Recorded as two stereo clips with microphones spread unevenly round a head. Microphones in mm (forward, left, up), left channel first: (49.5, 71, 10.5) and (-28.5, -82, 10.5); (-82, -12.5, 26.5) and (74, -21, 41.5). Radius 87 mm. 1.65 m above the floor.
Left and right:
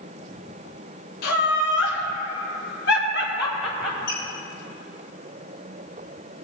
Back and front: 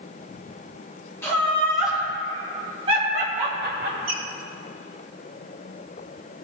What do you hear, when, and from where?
1.2 s laughter: 95° left, 1.4 m; by 4.0 s 25° left, 1.3 m
4.1 s a squeak: 30° left, 3 m